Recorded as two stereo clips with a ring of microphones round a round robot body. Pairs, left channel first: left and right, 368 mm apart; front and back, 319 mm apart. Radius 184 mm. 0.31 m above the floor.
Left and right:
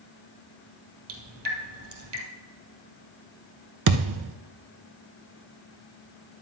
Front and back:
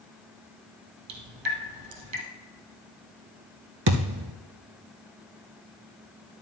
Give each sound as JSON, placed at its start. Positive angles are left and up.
{"t": 1.1, "sound": "dripping", "azimuth_deg": -145, "distance_m": 2.0}
{"t": 3.9, "sound": "a thud", "azimuth_deg": -130, "distance_m": 0.7}